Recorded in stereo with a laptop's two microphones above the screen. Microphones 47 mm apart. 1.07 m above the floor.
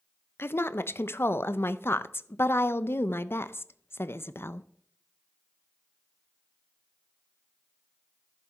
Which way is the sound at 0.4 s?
55° left (ahead or behind).